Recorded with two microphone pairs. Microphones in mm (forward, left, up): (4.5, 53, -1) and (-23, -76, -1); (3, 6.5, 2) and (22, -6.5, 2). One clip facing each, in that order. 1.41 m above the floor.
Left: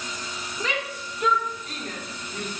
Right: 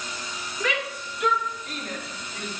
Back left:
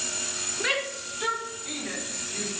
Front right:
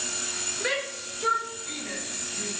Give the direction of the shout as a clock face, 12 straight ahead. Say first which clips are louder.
Right 2 dB, back left 3 dB; 7 o'clock.